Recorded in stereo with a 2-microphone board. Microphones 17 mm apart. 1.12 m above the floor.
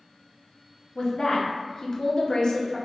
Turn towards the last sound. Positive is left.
turn(degrees=50)  # may be behind; listen again after turning